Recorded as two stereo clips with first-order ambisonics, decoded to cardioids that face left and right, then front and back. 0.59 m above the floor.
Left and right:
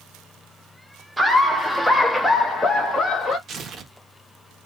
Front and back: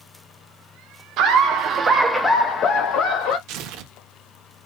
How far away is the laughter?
About 1.0 m.